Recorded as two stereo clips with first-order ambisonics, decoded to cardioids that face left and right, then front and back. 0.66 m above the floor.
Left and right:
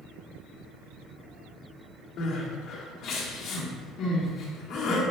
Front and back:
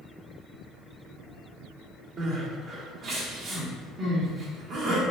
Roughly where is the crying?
Behind left.